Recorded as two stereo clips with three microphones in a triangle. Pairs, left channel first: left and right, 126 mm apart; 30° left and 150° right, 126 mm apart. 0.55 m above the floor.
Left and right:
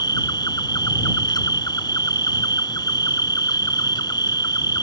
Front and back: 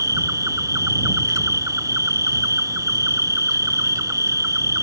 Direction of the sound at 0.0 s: 145° left.